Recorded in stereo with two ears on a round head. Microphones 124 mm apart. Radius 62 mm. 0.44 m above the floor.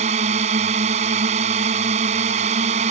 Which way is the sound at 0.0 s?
50° right (ahead or behind).